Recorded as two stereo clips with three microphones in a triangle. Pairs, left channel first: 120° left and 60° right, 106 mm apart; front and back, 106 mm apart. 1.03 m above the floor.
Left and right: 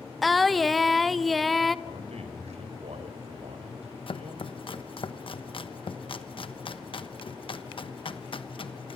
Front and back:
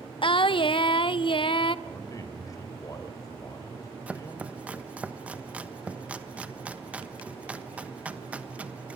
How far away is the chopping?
About 1.1 m.